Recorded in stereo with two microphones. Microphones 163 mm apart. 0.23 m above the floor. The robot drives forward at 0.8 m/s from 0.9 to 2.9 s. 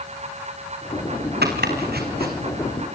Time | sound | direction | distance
1.4 | chopping | 80° right | 4 m